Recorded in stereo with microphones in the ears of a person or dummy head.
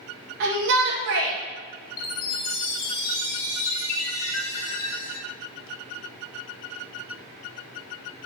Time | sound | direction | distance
0.4 | a shout | 65° right (ahead or behind) | 1.8 m
2.0 | a chime | 55° left (ahead or behind) | 2.5 m